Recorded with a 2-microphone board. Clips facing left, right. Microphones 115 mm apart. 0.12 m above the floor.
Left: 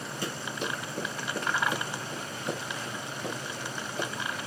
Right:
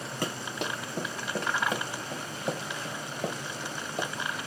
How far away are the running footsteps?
About 3 m.